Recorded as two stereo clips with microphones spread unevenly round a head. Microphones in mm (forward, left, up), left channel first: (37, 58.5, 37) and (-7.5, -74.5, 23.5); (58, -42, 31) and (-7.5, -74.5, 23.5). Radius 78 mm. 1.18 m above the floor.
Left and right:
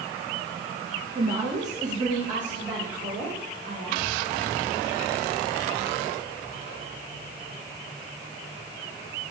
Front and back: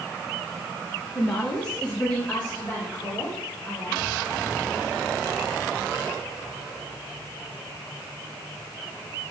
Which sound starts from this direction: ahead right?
A woman speaking, at 1.1 s.